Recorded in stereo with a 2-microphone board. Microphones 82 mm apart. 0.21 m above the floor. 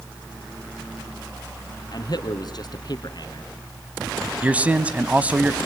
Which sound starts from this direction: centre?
A man speaking, at 4.4 s.